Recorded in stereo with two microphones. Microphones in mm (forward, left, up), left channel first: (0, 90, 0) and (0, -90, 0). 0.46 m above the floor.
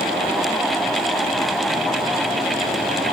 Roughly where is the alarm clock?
No alarm clock in this recording.